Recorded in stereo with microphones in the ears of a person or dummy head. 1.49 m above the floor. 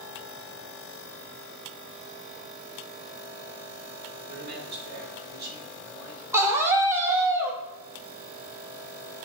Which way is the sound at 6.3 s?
15° right (ahead or behind).